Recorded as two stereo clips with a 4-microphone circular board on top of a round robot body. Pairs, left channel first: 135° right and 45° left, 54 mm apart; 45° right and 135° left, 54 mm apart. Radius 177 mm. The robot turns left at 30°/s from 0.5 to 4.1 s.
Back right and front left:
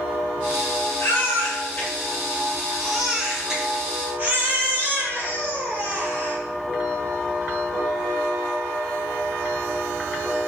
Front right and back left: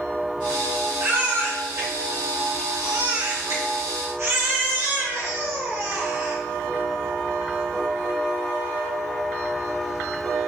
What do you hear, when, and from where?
1.0 s a baby crying: 165° right, 2.5 m; by 6.4 s 100° left, 2.5 m